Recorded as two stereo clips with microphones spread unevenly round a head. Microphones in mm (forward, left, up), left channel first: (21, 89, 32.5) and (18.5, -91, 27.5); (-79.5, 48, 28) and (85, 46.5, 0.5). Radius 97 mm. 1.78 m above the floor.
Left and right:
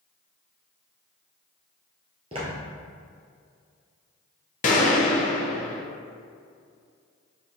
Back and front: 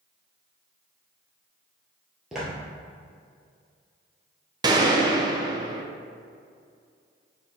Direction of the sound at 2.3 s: 105° right.